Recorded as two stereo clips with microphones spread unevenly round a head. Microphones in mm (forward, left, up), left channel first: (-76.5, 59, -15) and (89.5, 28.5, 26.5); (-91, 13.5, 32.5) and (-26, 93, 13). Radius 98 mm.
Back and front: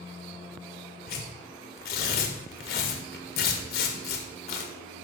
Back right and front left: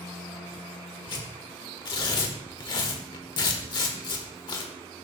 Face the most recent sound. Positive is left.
turn(degrees=-145)